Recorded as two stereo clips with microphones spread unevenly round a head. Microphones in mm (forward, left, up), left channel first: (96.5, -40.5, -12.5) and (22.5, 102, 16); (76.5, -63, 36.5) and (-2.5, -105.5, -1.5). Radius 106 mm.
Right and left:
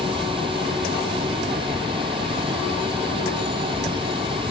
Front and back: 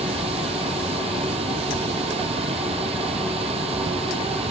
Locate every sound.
0.0 s running water: 175° right